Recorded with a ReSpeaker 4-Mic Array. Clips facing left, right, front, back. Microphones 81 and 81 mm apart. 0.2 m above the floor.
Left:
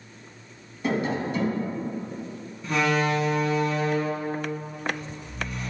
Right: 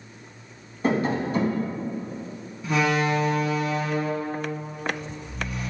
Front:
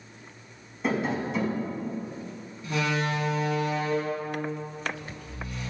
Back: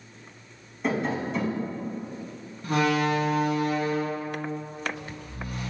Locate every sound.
0.8 s tapping: 85° right, 0.8 m
2.6 s a door slam: 175° right, 1.2 m